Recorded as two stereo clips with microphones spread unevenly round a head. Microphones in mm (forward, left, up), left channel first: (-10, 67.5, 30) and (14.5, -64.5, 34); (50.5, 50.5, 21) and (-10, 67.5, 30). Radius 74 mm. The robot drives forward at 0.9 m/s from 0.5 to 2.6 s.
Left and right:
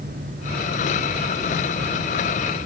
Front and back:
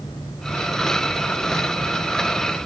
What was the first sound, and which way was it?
Only background noise.